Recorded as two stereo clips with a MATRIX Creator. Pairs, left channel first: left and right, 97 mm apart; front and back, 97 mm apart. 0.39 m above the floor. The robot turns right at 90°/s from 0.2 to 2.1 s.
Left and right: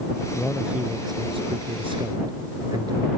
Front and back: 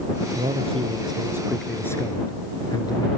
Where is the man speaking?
160° left; by 3.1 s 45° right.